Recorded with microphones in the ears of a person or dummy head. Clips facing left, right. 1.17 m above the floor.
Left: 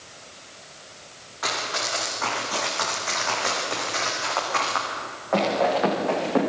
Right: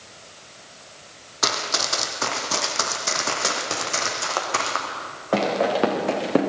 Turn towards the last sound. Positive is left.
turn(degrees=-50)  # may be behind; listen again after turning